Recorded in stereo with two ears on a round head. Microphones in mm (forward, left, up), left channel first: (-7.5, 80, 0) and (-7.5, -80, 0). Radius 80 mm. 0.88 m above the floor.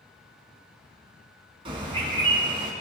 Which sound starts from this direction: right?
A bird, at 1.6 s.